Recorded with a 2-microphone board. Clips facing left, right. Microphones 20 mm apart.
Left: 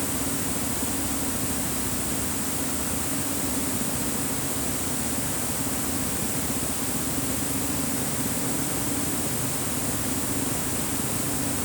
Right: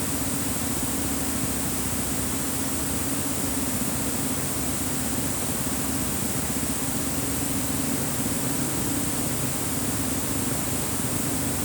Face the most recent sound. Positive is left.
No sound to turn to.